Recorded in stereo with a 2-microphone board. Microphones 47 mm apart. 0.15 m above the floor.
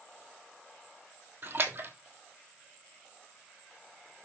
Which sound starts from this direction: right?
A splash, at 1.4 s.